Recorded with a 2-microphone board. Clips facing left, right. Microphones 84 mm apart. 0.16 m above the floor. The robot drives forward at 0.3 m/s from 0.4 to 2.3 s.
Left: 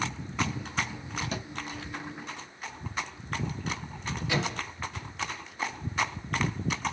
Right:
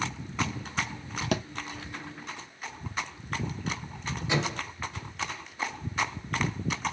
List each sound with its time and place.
1.3 s a thud: 75° right (ahead or behind), 0.7 m
4.3 s a microwave: 20° right (ahead or behind), 1.7 m